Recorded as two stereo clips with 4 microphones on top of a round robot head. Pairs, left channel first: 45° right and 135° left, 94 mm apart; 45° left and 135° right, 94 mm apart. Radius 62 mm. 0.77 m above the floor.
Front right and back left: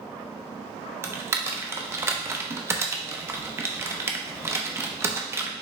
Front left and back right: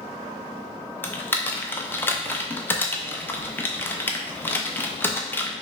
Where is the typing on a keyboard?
95° left, 0.7 m.